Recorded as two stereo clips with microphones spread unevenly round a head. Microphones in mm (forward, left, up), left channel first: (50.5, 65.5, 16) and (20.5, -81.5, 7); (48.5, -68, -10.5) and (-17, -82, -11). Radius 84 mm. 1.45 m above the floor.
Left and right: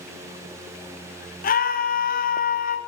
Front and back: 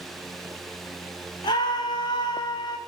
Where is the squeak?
No squeak in this recording.